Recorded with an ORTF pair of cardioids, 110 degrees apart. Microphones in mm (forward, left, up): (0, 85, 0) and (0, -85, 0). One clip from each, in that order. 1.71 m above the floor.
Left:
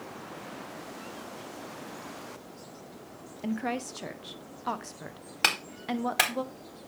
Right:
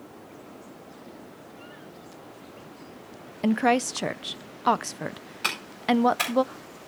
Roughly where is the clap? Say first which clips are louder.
Right 1 dB; ahead left.